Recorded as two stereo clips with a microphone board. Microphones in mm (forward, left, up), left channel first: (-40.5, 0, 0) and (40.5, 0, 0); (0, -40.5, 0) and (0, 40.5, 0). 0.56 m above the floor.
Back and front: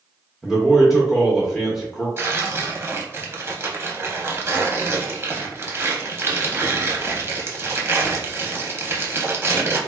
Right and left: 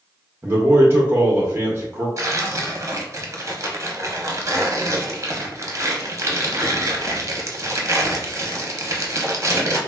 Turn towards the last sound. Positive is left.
turn(degrees=50)